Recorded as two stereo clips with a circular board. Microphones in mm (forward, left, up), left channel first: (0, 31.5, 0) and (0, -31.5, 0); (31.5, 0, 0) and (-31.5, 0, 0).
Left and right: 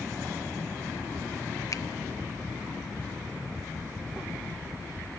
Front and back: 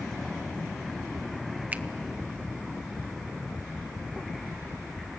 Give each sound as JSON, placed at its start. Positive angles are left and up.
{"t": 1.7, "sound": "a finger snap", "azimuth_deg": 115, "distance_m": 0.7}